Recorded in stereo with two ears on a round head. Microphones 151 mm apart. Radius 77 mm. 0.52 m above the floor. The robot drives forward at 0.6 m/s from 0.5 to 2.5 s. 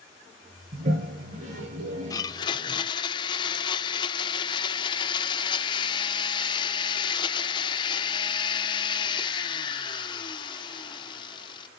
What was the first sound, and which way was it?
A toilet flushing, 50° right (ahead or behind).